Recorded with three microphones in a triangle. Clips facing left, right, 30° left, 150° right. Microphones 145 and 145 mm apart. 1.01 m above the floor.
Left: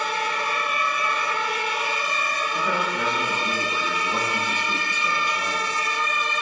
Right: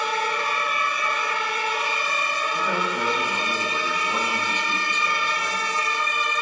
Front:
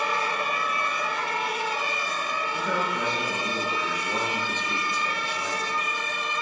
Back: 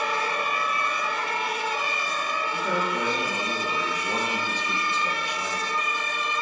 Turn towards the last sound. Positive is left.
turn(degrees=90)